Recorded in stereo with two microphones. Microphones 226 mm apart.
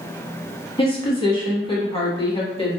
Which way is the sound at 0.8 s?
25° left (ahead or behind).